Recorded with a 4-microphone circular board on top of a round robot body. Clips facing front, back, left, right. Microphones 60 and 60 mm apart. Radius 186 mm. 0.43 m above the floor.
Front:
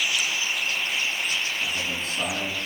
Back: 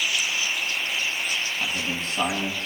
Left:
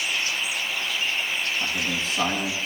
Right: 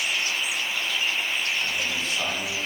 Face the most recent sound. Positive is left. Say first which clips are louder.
# back 1 dB, left 1 dB
turn(degrees=155)